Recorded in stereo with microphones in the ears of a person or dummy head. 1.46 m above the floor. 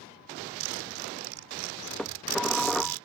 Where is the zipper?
80° right.